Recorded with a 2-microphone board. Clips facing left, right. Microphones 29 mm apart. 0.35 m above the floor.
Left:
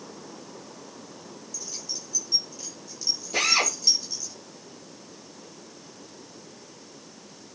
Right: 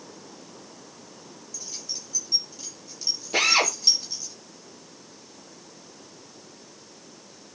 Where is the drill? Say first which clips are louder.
Right 3 dB; 30° right (ahead or behind), 6 m.